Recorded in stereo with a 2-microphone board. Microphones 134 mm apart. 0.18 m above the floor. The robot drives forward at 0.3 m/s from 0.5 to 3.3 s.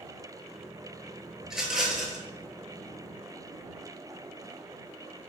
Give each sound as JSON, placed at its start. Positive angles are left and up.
{"t": 1.4, "sound": "a rattle", "side_deg": -5, "distance_m": 0.5}